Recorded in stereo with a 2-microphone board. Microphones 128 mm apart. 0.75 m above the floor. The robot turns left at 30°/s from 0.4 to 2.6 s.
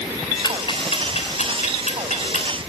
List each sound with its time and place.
0.4 s ticking: 35° left (ahead or behind), 3 m; by 2.5 s 80° left, 3 m